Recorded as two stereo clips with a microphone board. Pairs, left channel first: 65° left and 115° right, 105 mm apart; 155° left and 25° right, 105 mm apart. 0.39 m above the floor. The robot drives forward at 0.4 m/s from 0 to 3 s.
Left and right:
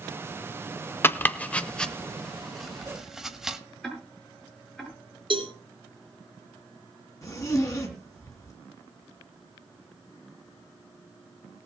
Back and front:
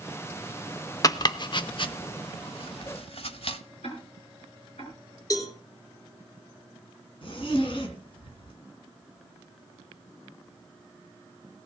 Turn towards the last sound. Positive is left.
turn(degrees=125)